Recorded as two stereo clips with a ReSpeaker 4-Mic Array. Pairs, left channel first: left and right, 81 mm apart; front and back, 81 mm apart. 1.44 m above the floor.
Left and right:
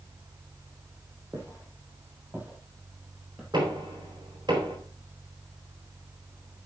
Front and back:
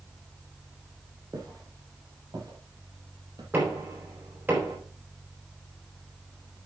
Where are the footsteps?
145° right, 3 m; by 3.4 s 170° right, 3 m.